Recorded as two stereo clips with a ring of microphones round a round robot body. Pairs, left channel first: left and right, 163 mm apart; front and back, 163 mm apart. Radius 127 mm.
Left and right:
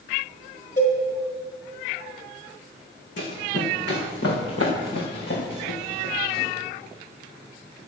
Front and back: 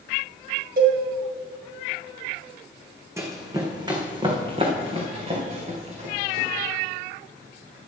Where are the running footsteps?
105° left, 2.5 m; by 6.5 s 135° left, 4.5 m.